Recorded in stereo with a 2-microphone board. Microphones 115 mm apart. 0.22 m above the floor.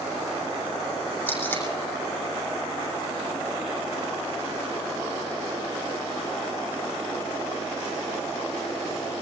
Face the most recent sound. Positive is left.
turn(degrees=20)  # may be behind; listen again after turning